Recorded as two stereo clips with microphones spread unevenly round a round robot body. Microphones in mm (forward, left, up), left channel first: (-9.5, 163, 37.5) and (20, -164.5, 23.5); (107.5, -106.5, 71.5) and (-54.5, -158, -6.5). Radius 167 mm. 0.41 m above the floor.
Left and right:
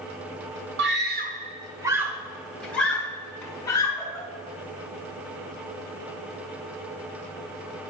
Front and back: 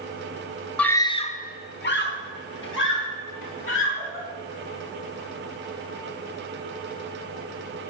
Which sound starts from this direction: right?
A scream, at 0.8 s.